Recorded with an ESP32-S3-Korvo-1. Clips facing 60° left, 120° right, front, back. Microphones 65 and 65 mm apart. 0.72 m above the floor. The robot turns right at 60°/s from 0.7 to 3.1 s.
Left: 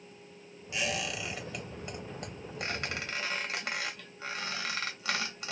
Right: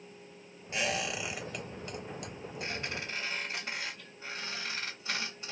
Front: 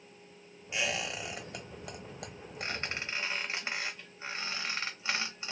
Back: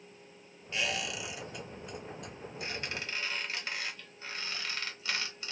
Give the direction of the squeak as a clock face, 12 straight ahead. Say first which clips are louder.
Right 1 dB, front 1 dB; 3 o'clock.